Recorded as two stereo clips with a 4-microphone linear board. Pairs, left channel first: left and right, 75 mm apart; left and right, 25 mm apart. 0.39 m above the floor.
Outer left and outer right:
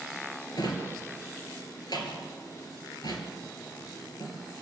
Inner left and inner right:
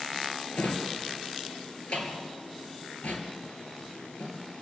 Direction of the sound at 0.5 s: 65° left (ahead or behind).